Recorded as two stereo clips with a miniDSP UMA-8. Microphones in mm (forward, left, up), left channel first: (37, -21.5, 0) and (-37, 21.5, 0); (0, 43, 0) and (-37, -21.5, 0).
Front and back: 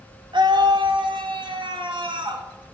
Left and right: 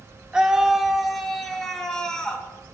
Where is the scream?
160° left, 1.8 m; by 2.5 s 140° left, 2.5 m.